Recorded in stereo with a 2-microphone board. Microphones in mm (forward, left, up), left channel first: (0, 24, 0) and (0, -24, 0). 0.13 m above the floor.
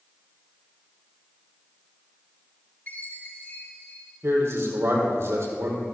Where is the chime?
40° left (ahead or behind), 4 m.